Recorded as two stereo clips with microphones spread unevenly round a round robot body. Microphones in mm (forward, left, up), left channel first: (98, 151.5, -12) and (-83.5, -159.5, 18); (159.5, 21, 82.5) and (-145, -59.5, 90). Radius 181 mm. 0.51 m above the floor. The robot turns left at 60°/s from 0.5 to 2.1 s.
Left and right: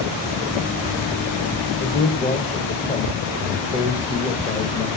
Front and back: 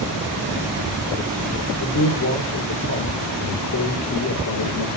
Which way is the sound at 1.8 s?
5° left.